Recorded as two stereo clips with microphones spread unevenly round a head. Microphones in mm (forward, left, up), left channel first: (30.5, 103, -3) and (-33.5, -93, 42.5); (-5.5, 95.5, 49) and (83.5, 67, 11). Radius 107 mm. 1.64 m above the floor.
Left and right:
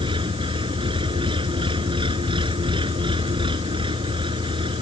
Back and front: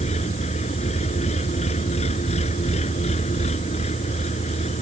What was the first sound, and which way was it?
An engine running, 175° right.